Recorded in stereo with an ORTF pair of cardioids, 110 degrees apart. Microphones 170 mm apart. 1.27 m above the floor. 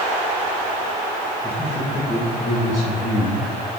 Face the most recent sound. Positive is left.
turn(degrees=60)